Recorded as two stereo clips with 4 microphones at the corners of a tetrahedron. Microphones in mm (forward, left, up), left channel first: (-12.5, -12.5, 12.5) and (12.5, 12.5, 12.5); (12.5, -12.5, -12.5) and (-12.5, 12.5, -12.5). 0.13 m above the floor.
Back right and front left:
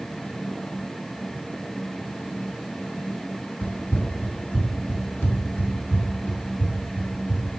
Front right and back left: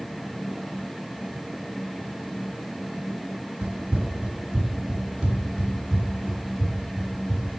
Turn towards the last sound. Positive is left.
turn(degrees=-155)